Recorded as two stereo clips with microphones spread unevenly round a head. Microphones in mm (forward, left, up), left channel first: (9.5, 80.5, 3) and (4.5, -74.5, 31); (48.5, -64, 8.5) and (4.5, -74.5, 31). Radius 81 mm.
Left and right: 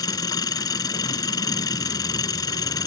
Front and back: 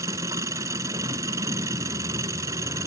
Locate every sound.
0.0 s an engine running: 160° left